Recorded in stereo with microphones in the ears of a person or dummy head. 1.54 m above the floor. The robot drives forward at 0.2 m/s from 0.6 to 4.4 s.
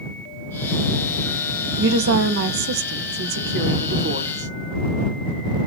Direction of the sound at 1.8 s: 65° right (ahead or behind).